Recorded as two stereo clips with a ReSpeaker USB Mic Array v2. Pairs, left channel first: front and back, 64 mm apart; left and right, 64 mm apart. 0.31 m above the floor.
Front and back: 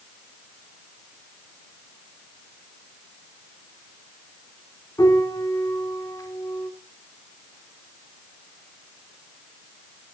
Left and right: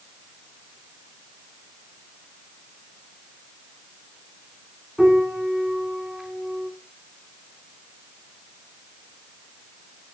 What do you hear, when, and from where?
5.0 s a piano: 5° right, 3 m